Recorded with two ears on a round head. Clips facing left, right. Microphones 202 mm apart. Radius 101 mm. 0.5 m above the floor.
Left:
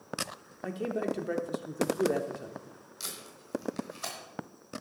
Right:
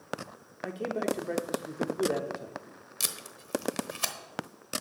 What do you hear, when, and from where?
0.6 s a man speaking: 5° left (ahead or behind), 0.8 m
3.0 s tape being pulled: 75° right (ahead or behind), 1.2 m